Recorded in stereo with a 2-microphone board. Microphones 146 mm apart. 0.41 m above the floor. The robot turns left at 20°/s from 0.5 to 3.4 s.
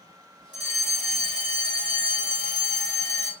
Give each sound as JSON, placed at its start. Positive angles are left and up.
{"t": 0.5, "sound": "a fire alarm", "azimuth_deg": 95, "distance_m": 2.0}